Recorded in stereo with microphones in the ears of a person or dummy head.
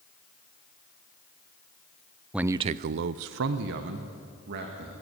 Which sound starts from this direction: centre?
A man speaking, at 2.3 s.